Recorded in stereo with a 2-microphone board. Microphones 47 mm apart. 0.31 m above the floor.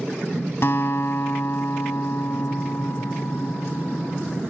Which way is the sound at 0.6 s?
55° left (ahead or behind).